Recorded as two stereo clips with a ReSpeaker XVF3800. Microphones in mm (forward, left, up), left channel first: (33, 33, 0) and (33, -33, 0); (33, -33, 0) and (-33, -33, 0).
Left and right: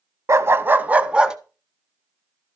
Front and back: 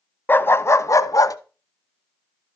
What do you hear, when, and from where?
0.3 s a dog barking: 55° right, 0.8 m; by 1.4 s 10° right, 1.0 m